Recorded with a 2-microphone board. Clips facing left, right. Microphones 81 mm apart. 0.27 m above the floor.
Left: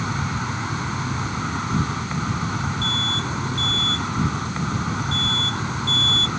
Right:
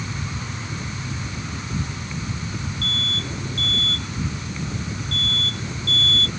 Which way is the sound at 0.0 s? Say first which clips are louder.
Left 6 dB; 65° left (ahead or behind).